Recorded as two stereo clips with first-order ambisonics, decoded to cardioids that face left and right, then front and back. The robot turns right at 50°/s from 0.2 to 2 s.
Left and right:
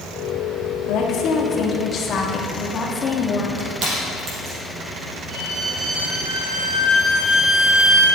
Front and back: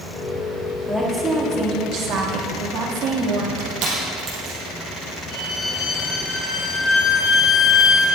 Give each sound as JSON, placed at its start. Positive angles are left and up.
{"t": 0.9, "sound": "a woman speaking", "azimuth_deg": 95, "distance_m": 1.2}
{"t": 3.6, "sound": "crushing", "azimuth_deg": -135, "distance_m": 3.5}
{"t": 5.3, "sound": "a violin", "azimuth_deg": -45, "distance_m": 2.5}